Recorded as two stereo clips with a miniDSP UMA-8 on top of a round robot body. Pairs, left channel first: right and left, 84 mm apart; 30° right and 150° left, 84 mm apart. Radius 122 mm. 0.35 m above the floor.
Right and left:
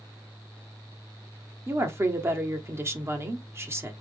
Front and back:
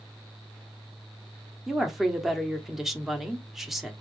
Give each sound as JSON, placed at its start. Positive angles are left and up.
{"t": 1.7, "sound": "a woman speaking", "azimuth_deg": 65, "distance_m": 1.2}